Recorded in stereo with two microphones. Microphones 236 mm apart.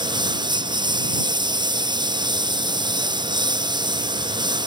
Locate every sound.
0.0 s a lawn mower: 15° right (ahead or behind)